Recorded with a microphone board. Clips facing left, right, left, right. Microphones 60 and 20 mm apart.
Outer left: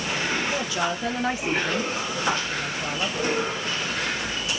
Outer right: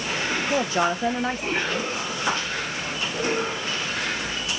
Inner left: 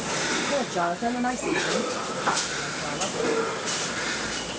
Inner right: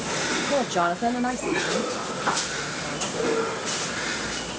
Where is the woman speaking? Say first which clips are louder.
Outer right 4 dB, inner right 2 dB; 45° right (ahead or behind), 1.0 m; by 3.2 s 70° left (ahead or behind), 1.8 m.